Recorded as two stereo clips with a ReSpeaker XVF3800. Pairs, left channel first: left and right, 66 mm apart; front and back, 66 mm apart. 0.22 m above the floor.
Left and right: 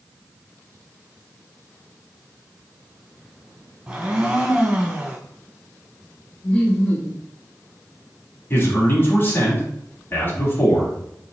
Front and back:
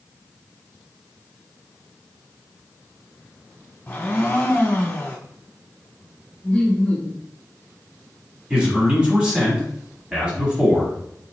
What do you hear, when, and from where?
3.9 s a blender: 30° right, 1.5 m
6.4 s laughter: 40° left, 1.0 m
8.5 s a man speaking: 115° left, 1.5 m